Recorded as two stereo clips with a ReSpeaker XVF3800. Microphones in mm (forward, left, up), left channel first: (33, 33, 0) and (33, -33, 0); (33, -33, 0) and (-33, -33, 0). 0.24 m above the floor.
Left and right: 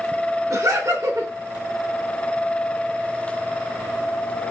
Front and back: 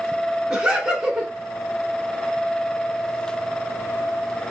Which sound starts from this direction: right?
Laughter, at 0.5 s.